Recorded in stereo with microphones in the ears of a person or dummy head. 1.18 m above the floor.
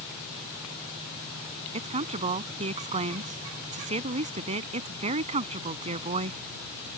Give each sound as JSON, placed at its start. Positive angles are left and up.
{"t": 1.7, "sound": "a woman speaking", "side_deg": -30}